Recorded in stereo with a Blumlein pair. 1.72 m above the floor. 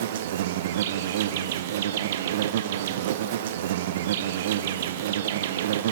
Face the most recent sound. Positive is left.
turn(degrees=-55)